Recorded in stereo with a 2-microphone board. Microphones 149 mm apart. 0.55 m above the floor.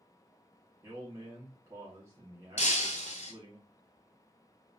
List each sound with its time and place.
0.8 s a man speaking: 20° right (ahead or behind), 0.9 m
2.6 s breaking glass: 55° left (ahead or behind), 0.8 m